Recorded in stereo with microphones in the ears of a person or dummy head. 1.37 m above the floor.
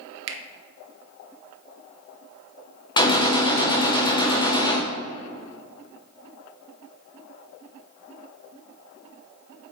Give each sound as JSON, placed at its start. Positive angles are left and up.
{"t": 0.3, "sound": "a finger snap", "side_deg": -65, "distance_m": 1.0}
{"t": 3.0, "sound": "a gunshot", "side_deg": 20, "distance_m": 0.9}